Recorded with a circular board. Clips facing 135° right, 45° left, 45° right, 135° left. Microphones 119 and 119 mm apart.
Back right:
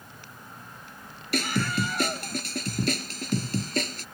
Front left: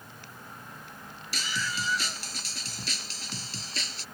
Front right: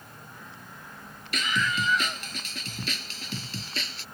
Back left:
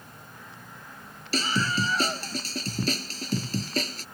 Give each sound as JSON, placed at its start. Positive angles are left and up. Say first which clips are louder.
{"t": 1.3, "sound": "a scream", "louder": "back right 8 dB, back left 2 dB", "azimuth_deg": -170}